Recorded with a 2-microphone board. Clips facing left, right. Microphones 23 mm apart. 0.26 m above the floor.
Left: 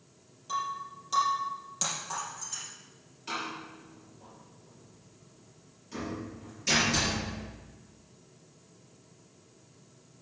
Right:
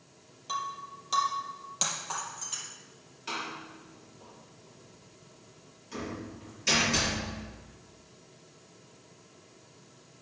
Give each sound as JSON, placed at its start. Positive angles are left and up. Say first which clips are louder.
{"t": 0.5, "sound": "breaking glass", "louder": "left 2 dB", "side_deg": -25, "distance_m": 3.5}
{"t": 3.3, "sound": "a door slam", "louder": "even", "side_deg": -15, "distance_m": 5.0}